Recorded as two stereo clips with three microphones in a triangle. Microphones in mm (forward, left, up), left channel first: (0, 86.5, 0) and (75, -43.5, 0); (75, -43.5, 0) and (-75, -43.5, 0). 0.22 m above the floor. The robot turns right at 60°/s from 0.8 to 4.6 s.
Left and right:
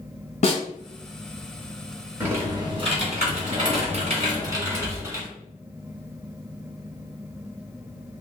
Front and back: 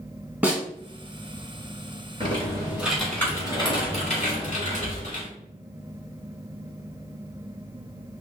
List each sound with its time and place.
0.4 s a snare drum: 105° left, 1.1 m
2.2 s typing on a keyboard: 135° right, 2.0 m; by 5.3 s 10° left, 2.0 m